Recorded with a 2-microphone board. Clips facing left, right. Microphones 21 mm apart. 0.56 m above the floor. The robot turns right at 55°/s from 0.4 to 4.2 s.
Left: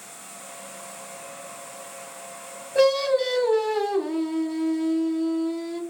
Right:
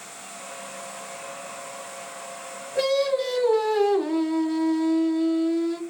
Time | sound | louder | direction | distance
2.8 | singing | left 3 dB | 125° left | 1.1 m